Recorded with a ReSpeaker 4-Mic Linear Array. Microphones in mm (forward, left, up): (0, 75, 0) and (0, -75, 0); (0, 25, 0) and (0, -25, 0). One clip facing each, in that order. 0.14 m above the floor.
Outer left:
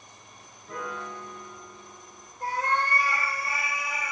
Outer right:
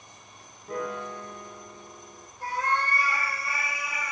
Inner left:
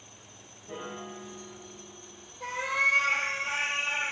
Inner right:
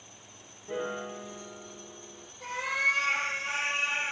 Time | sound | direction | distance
0.7 | a piano | 40° right (ahead or behind) | 1.0 m
2.4 | a cat meowing | 20° left (ahead or behind) | 1.3 m